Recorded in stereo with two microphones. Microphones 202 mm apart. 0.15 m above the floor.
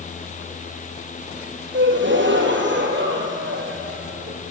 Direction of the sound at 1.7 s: 70° right (ahead or behind).